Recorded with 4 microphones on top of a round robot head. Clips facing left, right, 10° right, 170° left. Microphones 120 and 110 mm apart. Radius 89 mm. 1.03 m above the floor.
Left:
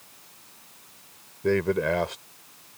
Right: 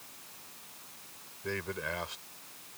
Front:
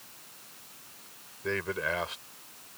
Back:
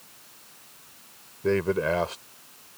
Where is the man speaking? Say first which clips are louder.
Left 14 dB, back 9 dB; 120° left.